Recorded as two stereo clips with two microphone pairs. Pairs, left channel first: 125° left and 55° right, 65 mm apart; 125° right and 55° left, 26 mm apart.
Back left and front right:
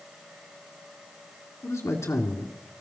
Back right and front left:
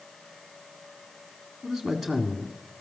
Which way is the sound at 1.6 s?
145° left.